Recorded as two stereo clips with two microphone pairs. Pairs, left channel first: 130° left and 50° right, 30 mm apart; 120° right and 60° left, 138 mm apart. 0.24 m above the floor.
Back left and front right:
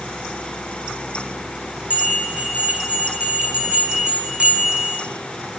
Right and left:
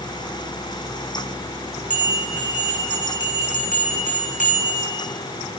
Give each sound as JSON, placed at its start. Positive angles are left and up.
{"t": 1.9, "sound": "a bell", "azimuth_deg": -100, "distance_m": 3.5}